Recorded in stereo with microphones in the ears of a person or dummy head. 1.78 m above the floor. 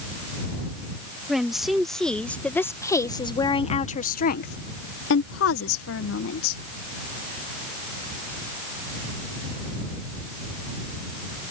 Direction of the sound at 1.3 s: Centre (ahead or behind).